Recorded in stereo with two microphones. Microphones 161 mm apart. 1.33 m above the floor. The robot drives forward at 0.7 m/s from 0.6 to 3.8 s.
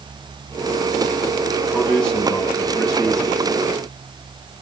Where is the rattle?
No rattle in this recording.